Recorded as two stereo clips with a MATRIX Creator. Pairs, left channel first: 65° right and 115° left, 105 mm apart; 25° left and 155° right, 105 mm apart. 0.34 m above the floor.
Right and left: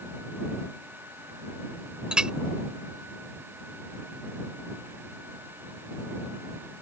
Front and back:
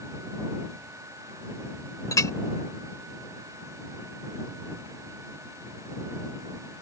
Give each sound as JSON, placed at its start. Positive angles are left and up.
{"t": 2.1, "sound": "a clink", "azimuth_deg": 35}